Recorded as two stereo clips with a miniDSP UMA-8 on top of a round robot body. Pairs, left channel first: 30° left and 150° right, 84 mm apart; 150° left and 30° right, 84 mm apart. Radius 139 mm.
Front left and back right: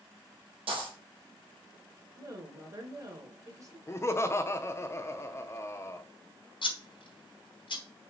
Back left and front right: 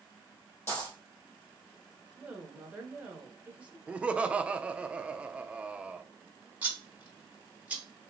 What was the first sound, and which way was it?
A dropped coin, 140° right.